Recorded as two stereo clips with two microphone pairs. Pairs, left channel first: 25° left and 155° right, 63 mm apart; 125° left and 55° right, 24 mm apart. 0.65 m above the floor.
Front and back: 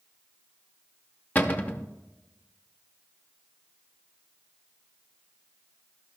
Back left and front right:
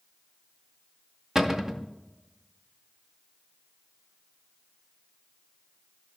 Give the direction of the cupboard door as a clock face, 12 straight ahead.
12 o'clock.